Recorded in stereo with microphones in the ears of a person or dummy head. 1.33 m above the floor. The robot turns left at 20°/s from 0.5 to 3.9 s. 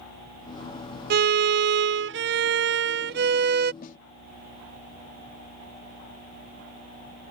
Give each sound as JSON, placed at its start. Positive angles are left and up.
{"t": 1.1, "sound": "a violin", "azimuth_deg": -70}
{"t": 3.8, "sound": "a snare drum", "side_deg": 50}